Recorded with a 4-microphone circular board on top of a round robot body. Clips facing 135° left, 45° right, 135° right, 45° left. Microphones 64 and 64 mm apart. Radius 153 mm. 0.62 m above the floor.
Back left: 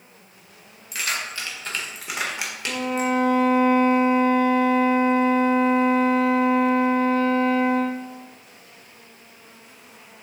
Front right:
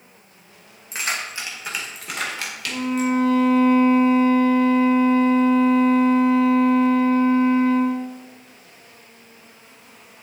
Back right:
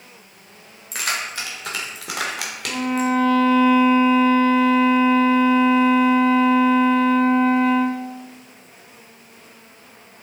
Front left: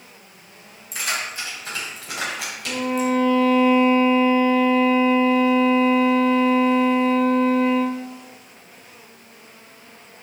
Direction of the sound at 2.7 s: 145° left.